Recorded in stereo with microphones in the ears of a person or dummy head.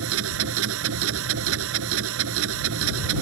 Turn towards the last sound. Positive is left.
turn(degrees=-80)